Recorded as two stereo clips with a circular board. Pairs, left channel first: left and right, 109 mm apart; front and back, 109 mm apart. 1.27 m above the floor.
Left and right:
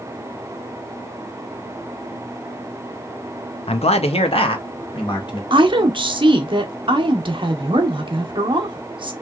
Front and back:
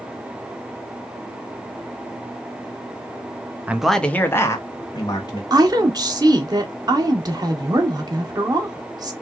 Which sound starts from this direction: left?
A man speaking, at 3.7 s.